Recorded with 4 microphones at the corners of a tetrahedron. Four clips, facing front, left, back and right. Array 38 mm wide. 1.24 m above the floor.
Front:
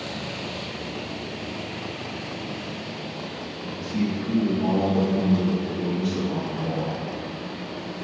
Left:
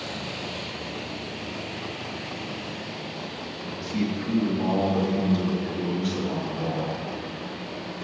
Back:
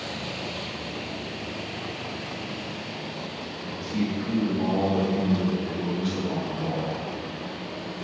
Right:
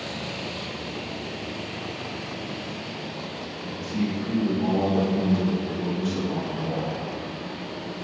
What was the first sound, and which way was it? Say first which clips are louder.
A man speaking: even, front 2 dB; 130° left.